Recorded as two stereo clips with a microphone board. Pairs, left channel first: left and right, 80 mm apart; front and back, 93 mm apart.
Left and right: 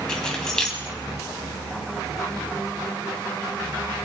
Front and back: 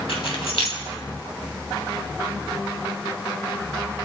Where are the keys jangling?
10° left, 3 m.